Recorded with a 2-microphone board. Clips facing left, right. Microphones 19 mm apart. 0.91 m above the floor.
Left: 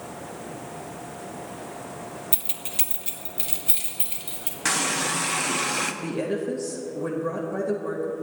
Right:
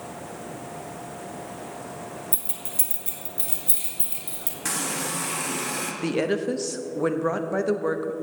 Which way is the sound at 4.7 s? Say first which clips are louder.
Left 5 dB; 25° left (ahead or behind).